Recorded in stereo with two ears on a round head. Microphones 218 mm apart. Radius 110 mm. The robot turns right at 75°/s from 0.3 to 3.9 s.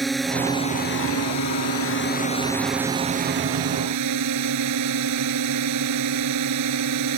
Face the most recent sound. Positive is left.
turn(degrees=-90)